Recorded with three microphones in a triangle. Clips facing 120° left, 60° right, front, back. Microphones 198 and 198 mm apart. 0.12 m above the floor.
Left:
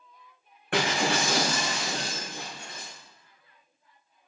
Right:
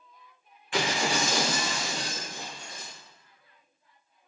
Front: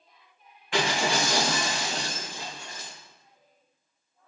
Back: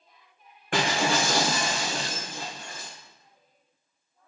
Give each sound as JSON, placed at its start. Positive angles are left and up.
{"t": 0.7, "sound": "breaking glass", "azimuth_deg": 145, "distance_m": 4.0}